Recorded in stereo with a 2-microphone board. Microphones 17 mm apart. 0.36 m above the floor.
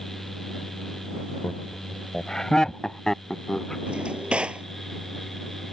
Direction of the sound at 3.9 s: 70° right (ahead or behind).